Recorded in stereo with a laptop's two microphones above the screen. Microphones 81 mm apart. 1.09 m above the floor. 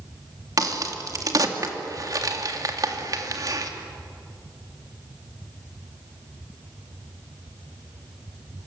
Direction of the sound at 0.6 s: 50° right (ahead or behind).